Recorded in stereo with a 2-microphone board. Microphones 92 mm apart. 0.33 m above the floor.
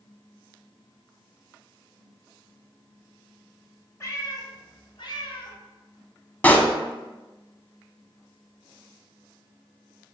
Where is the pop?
20° left (ahead or behind), 0.5 m.